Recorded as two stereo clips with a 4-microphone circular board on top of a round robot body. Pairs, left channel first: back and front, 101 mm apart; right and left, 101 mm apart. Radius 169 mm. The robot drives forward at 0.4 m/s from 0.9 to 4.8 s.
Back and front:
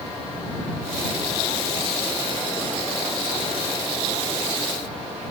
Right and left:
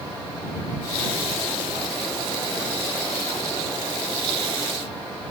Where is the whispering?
No whispering in this recording.